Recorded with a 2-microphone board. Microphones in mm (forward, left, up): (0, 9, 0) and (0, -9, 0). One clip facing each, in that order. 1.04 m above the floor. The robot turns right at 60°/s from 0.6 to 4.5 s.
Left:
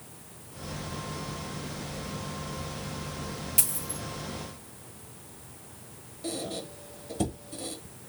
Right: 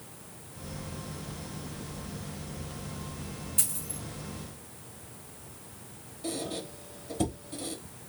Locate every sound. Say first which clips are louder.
3.6 s a dropped coin: left 1 dB; 70° left (ahead or behind), 2 m; by 4.0 s 65° left (ahead or behind), 2 m
6.2 s a squeak: even; 10° left (ahead or behind), 0.9 m